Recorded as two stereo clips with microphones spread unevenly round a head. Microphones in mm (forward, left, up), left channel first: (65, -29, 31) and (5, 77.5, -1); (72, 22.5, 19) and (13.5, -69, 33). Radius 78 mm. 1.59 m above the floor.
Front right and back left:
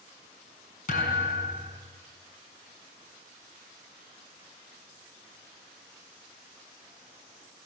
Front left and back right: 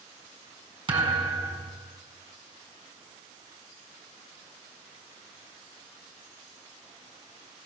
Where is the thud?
80° right, 6.5 m.